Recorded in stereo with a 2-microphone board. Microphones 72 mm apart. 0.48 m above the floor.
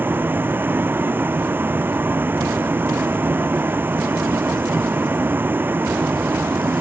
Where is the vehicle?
30° right (ahead or behind).